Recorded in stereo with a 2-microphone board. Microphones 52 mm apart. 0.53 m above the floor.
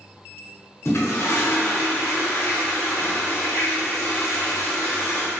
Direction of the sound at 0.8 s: 60° left (ahead or behind).